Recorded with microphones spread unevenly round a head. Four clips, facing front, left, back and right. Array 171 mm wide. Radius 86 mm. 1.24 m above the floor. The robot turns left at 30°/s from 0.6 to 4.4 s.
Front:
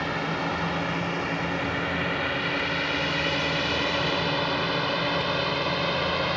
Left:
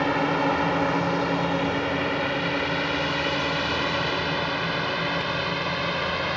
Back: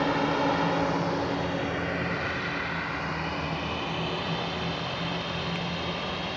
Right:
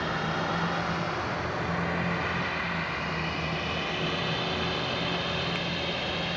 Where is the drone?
120° left; by 6.4 s 5° left.